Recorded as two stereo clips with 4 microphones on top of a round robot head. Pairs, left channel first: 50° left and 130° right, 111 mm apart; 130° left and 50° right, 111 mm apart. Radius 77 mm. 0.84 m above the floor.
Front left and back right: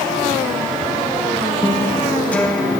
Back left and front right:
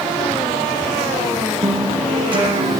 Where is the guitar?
25° right, 1.4 m.